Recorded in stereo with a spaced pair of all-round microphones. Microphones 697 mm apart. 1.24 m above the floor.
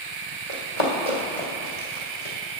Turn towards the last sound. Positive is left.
turn(degrees=60)  # may be behind; listen again after turning